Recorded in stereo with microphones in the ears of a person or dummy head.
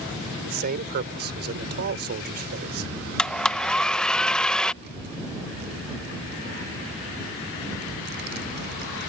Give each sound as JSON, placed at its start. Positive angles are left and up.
{"t": 0.5, "sound": "a man speaking", "side_deg": -50}
{"t": 3.2, "sound": "a blender", "side_deg": 5}
{"t": 4.8, "sound": "a child speaking", "side_deg": -50}